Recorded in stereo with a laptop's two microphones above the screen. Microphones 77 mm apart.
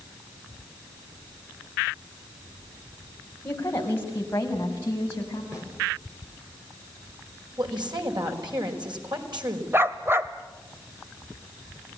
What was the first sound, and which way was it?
A woman speaking, 25° left (ahead or behind).